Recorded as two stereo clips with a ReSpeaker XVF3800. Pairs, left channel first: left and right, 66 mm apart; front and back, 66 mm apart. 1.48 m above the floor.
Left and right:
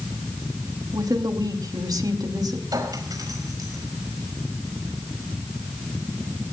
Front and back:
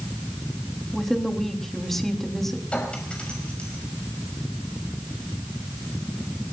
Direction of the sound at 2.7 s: 75° right.